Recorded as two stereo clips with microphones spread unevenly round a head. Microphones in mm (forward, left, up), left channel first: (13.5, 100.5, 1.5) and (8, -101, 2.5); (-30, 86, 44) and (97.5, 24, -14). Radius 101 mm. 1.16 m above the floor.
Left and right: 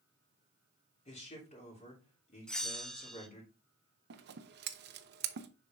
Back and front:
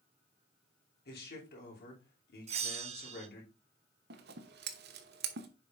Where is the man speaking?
150° left, 3 m.